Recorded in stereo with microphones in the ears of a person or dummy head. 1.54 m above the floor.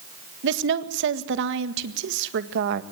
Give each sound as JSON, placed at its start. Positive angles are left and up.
{"t": 0.4, "sound": "a woman speaking", "side_deg": -65, "distance_m": 1.8}